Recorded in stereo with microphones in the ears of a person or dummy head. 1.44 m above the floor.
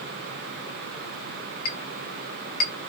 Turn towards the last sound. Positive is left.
turn(degrees=55)  # may be behind; listen again after turning